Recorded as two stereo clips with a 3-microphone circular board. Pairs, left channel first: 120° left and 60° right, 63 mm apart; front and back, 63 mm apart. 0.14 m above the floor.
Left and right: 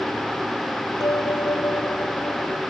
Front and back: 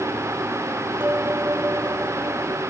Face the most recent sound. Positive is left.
turn(degrees=130)